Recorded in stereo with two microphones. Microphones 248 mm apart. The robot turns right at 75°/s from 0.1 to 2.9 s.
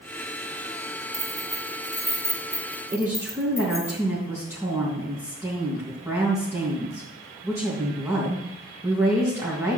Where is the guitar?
No guitar in this recording.